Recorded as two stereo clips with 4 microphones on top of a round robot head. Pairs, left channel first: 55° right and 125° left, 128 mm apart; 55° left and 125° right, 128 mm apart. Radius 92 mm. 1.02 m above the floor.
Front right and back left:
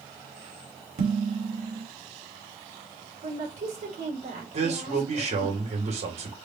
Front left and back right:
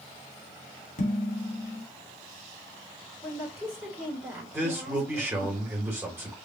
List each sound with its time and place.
1.0 s dishes clattering: 85° left, 1.5 m
3.2 s a woman speaking: 165° left, 2.5 m
4.5 s a man speaking: 160° left, 2.5 m